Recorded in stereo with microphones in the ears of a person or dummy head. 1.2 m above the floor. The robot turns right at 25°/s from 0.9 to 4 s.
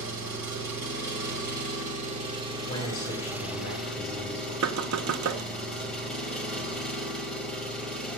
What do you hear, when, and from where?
0.0 s an engine running: 75° right, 2 m; by 8.2 s 5° left, 2 m
2.7 s a man speaking: 20° left, 3 m; by 4.5 s 55° left, 3 m
4.6 s knocking: 75° right (ahead or behind), 0.6 m